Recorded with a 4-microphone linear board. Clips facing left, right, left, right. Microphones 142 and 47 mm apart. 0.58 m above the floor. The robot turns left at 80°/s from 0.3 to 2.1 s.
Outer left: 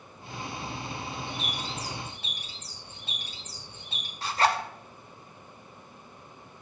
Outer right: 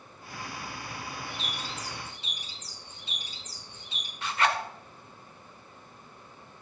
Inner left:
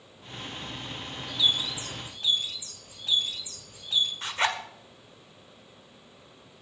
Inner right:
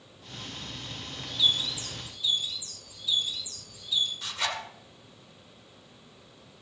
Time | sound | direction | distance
1.3 | a bird | 170° right | 3.5 m
4.2 | a zipper | 35° left (ahead or behind) | 1.6 m